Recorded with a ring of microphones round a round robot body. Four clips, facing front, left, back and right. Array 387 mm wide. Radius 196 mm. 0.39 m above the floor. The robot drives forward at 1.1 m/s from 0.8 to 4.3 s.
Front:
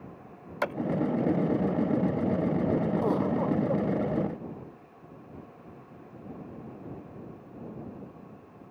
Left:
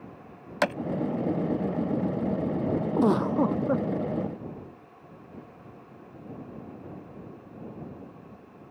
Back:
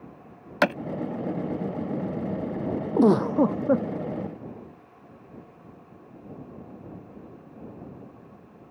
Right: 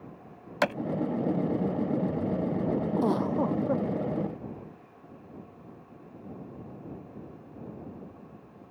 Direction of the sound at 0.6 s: 175° right.